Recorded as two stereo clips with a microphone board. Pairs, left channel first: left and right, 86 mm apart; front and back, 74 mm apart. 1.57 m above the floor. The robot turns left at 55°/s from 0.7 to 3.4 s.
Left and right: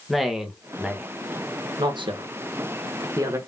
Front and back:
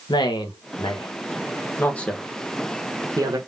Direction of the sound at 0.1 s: Straight ahead.